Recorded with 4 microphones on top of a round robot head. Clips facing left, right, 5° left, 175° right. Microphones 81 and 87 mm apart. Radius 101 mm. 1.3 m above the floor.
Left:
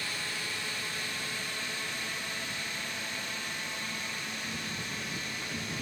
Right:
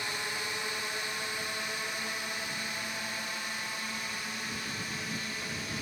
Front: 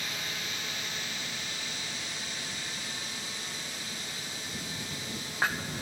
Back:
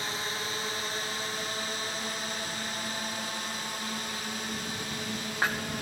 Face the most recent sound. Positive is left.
turn(degrees=-175)